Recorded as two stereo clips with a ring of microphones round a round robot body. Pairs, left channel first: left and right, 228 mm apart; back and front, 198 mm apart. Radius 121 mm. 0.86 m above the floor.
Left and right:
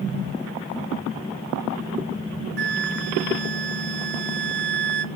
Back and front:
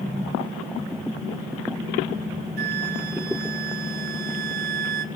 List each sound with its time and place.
2.6 s a flute: 45° right, 0.6 m